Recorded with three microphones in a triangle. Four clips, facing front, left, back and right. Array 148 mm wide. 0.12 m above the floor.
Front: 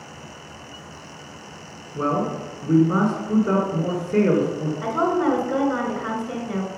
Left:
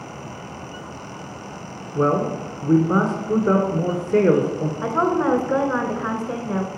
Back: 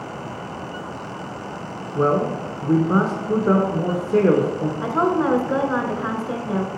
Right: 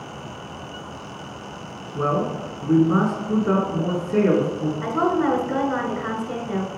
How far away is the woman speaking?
About 1.2 m.